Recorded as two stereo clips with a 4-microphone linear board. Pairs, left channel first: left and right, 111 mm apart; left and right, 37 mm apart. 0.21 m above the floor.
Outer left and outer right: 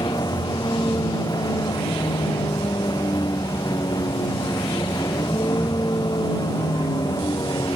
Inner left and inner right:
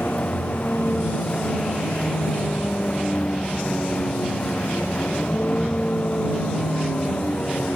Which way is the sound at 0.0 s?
40° left (ahead or behind).